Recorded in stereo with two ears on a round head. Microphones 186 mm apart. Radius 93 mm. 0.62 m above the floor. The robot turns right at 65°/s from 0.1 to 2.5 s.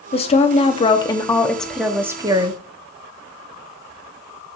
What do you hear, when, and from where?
0.1 s a woman speaking: 30° left (ahead or behind), 0.9 m; by 2.6 s 25° right (ahead or behind), 0.9 m